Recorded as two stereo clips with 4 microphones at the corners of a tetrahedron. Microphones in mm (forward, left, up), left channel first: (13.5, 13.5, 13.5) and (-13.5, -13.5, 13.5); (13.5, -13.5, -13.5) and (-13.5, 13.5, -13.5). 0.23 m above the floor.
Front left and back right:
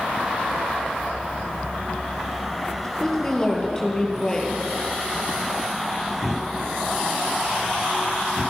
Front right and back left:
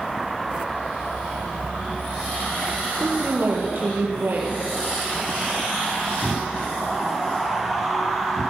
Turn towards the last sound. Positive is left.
turn(degrees=115)